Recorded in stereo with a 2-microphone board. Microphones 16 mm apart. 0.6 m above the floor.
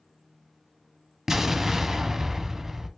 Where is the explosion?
20° right (ahead or behind), 0.5 m.